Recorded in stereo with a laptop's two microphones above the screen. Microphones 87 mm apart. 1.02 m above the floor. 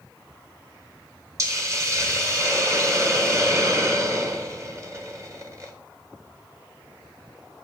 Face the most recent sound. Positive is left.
turn(degrees=-35)  # may be behind; listen again after turning